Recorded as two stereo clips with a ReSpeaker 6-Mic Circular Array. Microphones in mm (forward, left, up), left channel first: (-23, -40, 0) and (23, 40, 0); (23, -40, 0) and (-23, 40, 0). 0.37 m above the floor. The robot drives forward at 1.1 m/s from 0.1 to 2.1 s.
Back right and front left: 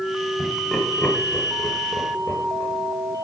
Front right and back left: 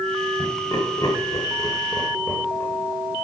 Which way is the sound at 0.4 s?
30° right.